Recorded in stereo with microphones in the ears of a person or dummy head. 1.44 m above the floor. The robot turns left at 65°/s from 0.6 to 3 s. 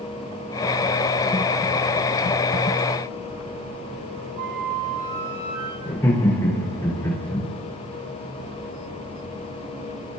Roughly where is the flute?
Right.